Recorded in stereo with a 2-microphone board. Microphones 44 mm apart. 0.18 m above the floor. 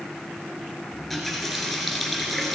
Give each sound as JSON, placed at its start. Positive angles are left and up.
{"t": 0.9, "sound": "a running tap", "side_deg": 5, "distance_m": 1.6}